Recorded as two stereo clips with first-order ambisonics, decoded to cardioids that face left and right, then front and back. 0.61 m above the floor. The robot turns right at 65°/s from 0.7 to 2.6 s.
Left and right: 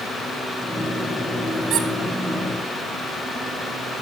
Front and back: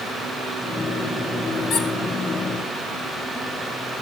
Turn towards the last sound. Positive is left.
turn(degrees=5)